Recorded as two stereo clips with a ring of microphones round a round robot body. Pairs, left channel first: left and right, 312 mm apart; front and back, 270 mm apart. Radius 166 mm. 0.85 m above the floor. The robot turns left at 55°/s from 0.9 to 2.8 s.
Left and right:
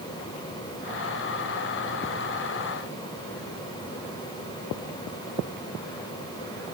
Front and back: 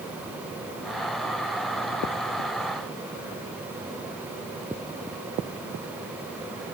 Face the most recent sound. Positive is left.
No sound to turn to.